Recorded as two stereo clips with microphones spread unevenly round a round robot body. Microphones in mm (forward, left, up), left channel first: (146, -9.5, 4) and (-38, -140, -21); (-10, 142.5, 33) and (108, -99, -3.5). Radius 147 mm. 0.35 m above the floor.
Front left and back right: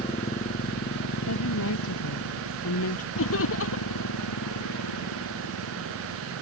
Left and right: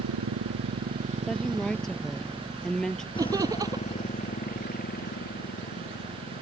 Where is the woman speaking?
30° left.